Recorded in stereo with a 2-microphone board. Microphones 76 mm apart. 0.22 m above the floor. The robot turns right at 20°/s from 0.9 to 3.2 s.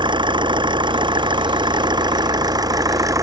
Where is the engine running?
90° right; by 3.2 s 45° right.